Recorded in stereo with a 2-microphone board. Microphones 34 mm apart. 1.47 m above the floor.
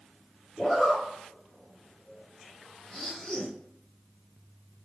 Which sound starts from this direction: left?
A zipper, at 0.6 s.